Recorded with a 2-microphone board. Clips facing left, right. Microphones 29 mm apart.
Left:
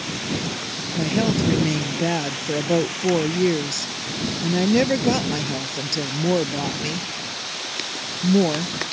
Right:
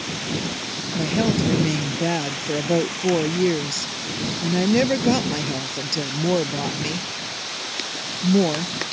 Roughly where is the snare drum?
No snare drum in this recording.